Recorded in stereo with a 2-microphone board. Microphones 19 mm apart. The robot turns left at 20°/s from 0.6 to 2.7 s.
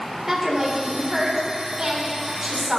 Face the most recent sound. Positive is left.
turn(degrees=-60)